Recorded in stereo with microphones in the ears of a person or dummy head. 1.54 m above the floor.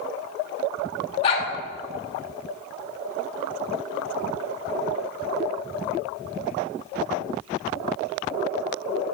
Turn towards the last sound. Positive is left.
turn(degrees=35)  # may be behind; listen again after turning